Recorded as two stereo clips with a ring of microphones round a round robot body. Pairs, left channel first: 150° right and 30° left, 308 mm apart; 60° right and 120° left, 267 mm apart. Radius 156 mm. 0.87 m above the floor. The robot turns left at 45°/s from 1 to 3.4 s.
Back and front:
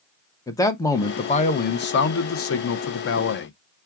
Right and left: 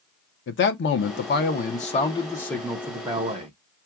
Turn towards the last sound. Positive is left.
turn(degrees=175)